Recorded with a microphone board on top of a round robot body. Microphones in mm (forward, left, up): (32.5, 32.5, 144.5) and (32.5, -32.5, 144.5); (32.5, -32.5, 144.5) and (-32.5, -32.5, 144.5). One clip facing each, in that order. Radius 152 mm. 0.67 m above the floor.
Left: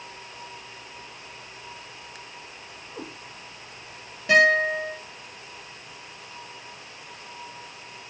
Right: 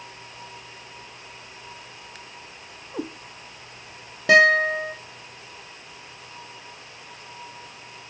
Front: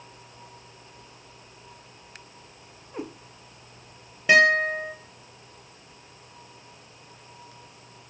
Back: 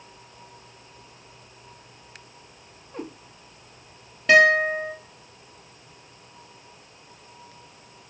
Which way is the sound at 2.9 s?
80° right.